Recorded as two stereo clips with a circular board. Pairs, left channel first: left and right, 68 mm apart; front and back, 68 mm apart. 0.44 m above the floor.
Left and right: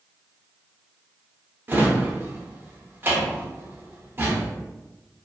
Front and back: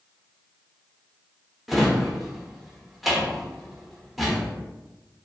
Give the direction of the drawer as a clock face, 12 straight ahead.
3 o'clock.